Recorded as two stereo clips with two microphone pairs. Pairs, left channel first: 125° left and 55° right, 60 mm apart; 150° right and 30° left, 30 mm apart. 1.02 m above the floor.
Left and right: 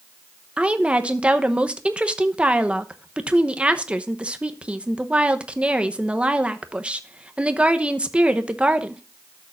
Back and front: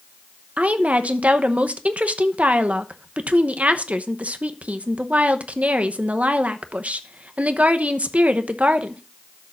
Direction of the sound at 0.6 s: 10° left.